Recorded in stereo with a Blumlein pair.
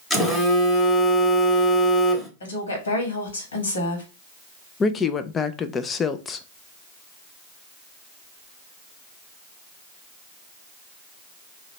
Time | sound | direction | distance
0.1 | a phone buzzing | 10° left | 1.2 m
2.4 | a woman speaking | 70° left | 2.0 m
4.8 | a woman speaking | 20° left | 0.5 m